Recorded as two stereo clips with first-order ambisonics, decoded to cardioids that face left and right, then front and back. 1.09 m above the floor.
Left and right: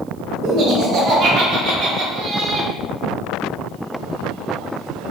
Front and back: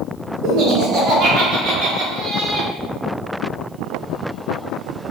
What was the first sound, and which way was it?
Laughter, 140° right.